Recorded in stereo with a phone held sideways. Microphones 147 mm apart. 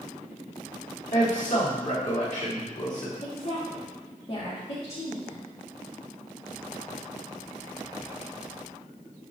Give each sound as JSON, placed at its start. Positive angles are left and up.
{"t": 1.1, "sound": "a man speaking", "side_deg": 60, "distance_m": 3.5}
{"t": 3.2, "sound": "a woman speaking", "side_deg": 40, "distance_m": 1.9}